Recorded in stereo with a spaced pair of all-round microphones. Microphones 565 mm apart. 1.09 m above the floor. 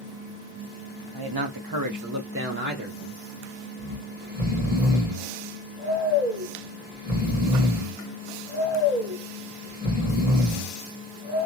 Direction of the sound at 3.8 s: 15° right (ahead or behind).